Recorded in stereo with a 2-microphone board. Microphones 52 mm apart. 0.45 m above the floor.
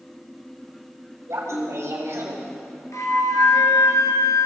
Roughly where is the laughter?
Right.